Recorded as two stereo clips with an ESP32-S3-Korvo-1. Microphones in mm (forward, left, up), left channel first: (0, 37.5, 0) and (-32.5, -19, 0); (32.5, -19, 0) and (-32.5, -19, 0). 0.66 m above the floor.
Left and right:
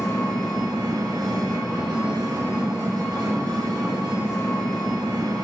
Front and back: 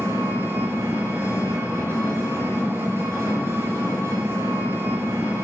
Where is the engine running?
125° right, 4.5 m.